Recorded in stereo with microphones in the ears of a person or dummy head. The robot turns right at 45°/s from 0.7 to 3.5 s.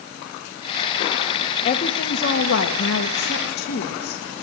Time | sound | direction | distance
1.6 | a woman speaking | 35° left | 1.8 m